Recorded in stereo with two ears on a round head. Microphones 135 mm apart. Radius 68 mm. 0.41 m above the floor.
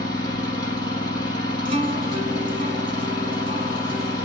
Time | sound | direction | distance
0.0 | an engine running | 30° left (ahead or behind) | 3.5 m
1.6 | a guitar | 35° right (ahead or behind) | 1.6 m